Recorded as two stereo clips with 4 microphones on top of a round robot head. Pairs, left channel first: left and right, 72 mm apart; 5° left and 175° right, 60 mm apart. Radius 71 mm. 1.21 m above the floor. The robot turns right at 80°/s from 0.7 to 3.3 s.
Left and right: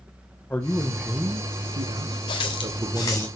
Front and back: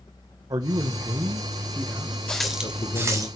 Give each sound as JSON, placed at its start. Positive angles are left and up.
{"t": 0.5, "sound": "a man speaking", "azimuth_deg": 160, "distance_m": 0.8}
{"t": 2.3, "sound": "a running tap", "azimuth_deg": 80, "distance_m": 1.5}